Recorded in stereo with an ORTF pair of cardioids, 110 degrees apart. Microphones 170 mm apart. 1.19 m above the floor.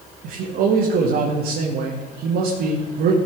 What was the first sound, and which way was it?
A man speaking, 65° right.